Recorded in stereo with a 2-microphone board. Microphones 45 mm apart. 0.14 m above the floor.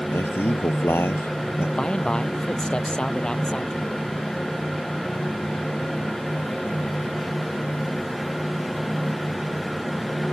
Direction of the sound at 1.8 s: 20° left (ahead or behind).